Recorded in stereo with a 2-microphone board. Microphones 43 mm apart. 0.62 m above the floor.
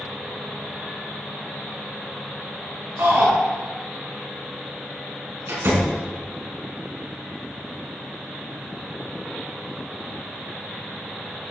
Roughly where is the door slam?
Right.